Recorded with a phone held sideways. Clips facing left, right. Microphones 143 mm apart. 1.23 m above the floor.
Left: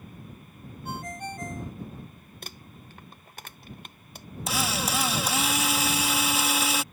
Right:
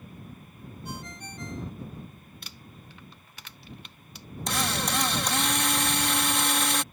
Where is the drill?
5° left (ahead or behind).